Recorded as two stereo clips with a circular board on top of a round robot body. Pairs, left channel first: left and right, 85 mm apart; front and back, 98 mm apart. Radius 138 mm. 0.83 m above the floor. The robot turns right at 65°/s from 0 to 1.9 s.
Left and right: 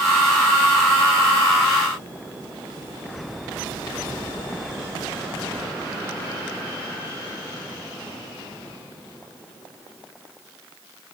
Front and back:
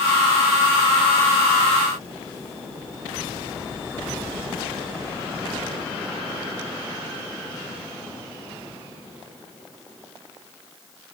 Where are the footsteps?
No footsteps in this recording.